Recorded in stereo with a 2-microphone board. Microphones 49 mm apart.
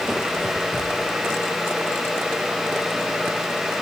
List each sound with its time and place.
Only background noise.